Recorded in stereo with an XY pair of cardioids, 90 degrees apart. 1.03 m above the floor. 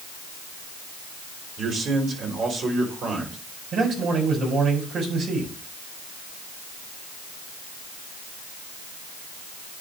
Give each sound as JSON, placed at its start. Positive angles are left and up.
{"t": 1.6, "sound": "a man speaking", "azimuth_deg": -65, "distance_m": 3.5}
{"t": 3.7, "sound": "a man speaking", "azimuth_deg": -70, "distance_m": 4.0}